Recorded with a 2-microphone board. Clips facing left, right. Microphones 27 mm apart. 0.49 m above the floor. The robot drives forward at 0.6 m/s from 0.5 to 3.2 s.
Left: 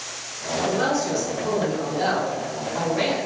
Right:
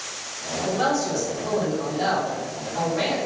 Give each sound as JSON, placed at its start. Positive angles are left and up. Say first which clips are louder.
{"t": 0.7, "sound": "a man speaking", "louder": "even", "side_deg": 10, "distance_m": 1.7}